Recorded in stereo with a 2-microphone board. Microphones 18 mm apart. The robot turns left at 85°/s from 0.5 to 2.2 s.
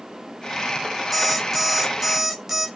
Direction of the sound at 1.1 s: 10° right (ahead or behind).